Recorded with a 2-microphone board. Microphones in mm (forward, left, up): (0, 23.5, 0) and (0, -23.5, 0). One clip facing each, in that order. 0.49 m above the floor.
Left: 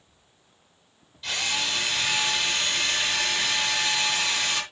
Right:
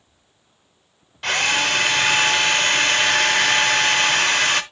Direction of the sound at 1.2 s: 60° right (ahead or behind).